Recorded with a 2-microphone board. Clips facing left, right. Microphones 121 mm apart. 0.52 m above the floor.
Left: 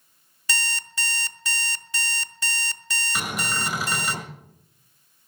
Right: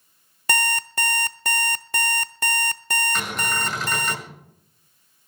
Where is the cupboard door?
5° left (ahead or behind), 6 m.